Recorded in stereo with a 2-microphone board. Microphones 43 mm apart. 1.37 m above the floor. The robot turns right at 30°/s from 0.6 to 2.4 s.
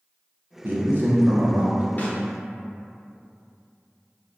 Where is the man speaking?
70° right, 0.6 m; by 1.8 s 35° right, 0.6 m.